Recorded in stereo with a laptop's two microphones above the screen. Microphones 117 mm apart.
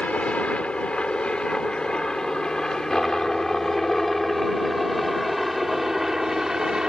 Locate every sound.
0.0 s a helicopter: 10° left (ahead or behind); by 6.9 s 5° right (ahead or behind)